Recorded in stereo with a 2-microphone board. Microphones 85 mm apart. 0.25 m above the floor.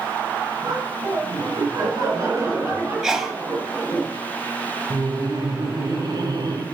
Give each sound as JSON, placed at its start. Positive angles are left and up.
{"t": 0.6, "sound": "laughter", "side_deg": -55, "distance_m": 3.0}
{"t": 3.0, "sound": "a sneeze", "side_deg": -5, "distance_m": 1.5}
{"t": 4.9, "sound": "laughter", "side_deg": -55, "distance_m": 2.5}